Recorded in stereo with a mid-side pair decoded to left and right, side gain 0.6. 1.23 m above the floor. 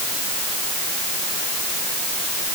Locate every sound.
Only background noise.